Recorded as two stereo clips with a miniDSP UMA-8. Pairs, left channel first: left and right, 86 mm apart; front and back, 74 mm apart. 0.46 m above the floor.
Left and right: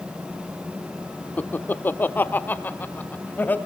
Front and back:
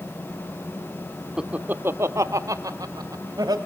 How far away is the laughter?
About 0.7 m.